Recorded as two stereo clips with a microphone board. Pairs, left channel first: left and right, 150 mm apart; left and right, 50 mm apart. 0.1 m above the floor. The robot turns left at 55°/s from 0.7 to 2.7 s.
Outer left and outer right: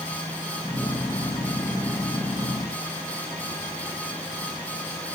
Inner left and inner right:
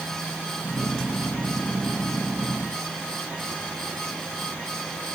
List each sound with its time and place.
Only background noise.